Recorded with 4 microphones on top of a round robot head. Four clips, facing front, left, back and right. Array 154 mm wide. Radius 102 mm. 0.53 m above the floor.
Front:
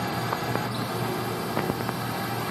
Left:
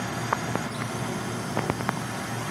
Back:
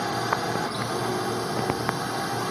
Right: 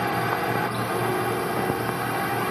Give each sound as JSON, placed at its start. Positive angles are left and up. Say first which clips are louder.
{"t": 0.0, "sound": "a drone", "louder": "right 5 dB, back 2 dB", "azimuth_deg": -110}